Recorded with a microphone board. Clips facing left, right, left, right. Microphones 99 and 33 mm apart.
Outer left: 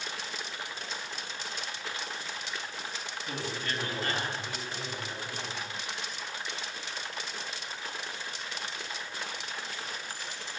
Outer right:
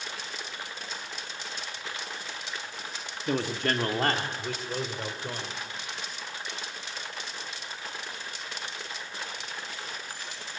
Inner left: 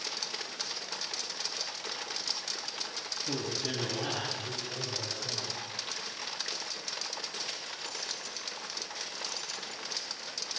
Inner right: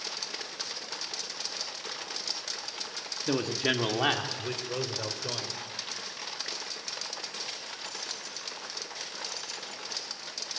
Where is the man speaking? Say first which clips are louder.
Outer right 9 dB, inner right 8 dB; 65° right (ahead or behind), 1.9 m.